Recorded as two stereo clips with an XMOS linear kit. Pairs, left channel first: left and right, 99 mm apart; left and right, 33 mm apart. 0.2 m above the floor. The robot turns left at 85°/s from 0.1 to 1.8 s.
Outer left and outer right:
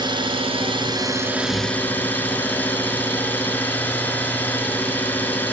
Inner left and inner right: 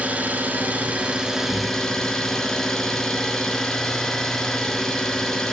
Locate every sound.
0.0 s an engine running: 55° right, 1.7 m; by 5.5 s 160° left, 1.7 m